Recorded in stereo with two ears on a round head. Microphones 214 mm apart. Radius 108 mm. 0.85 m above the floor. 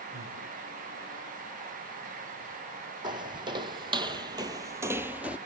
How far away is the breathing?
About 8.5 m.